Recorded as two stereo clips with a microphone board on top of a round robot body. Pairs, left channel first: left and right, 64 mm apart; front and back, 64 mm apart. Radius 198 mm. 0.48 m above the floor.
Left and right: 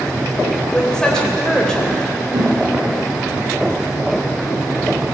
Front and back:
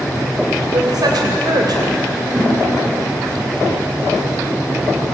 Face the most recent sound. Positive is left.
turn(degrees=-105)